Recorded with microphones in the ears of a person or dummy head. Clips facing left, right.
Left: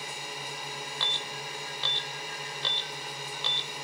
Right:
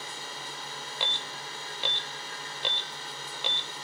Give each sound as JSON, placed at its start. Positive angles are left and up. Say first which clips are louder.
{"t": 0.0, "sound": "a drone", "louder": "left 2 dB", "side_deg": 15}
{"t": 1.0, "sound": "an alarm", "louder": "even", "side_deg": -15}